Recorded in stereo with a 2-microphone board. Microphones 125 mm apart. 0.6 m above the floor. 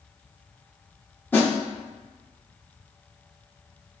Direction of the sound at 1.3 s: 15° left (ahead or behind).